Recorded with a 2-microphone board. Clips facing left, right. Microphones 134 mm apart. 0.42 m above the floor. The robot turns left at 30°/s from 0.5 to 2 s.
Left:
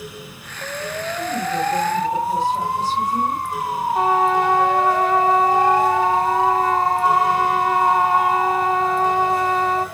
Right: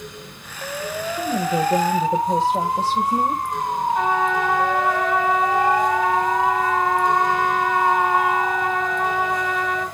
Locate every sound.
1.1 s a woman speaking: 45° right (ahead or behind), 2 m; by 3.4 s 55° right (ahead or behind), 2 m
4.0 s a trumpet: 35° left (ahead or behind), 1.4 m